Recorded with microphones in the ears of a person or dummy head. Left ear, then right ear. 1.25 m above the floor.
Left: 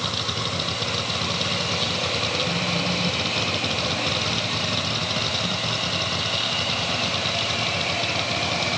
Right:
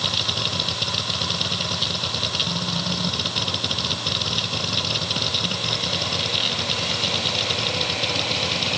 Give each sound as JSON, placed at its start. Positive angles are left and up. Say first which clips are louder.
{"t": 0.0, "sound": "a machine running", "louder": "right 3 dB", "side_deg": -15}